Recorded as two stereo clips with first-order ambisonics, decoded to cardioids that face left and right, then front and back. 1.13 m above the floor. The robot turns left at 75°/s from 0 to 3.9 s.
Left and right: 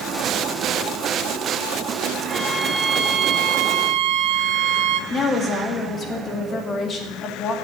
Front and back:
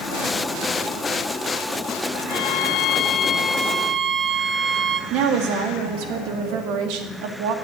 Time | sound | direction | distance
2.3 | a violin | 10° left | 0.8 m
5.1 | a woman speaking | 155° left | 1.8 m